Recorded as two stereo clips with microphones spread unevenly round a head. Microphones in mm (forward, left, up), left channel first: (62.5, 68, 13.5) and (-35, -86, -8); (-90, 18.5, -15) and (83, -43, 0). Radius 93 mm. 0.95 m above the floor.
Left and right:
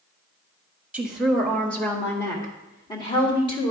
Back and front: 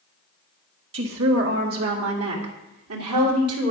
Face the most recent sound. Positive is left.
turn(degrees=-5)